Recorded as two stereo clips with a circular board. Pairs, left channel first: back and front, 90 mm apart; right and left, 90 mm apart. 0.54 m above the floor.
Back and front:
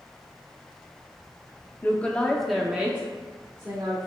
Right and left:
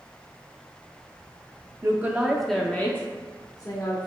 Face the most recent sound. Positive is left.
turn(degrees=-60)